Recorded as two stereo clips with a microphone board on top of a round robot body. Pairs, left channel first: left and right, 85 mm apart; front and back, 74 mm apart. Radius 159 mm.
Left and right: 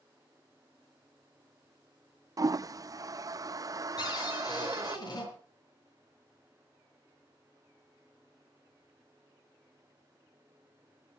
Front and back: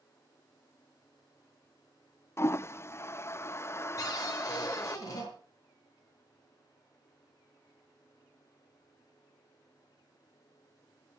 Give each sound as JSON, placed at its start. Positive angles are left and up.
{"t": 2.4, "sound": "a toilet flushing", "azimuth_deg": -50, "distance_m": 0.5}
{"t": 4.0, "sound": "a cupboard door", "azimuth_deg": 50, "distance_m": 7.0}